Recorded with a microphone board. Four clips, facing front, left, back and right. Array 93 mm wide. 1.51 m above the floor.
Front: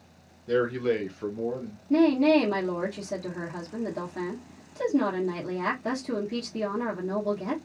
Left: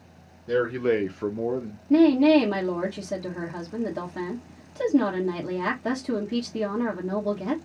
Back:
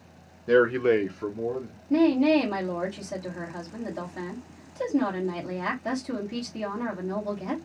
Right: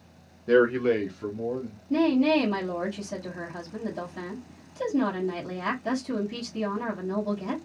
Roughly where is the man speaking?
Behind right.